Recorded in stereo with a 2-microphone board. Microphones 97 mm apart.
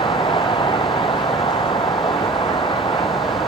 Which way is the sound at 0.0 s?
60° left (ahead or behind).